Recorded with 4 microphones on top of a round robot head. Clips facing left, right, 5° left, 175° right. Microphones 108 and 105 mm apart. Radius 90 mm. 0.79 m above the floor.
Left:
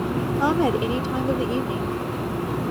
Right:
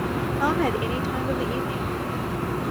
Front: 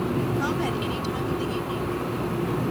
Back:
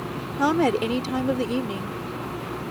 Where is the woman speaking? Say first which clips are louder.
Left 3 dB, back 5 dB; 160° left.